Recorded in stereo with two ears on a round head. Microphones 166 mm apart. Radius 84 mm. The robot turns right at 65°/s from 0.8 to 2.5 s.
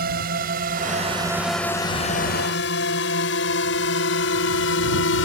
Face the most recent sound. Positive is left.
turn(degrees=70)  # may be behind; listen again after turning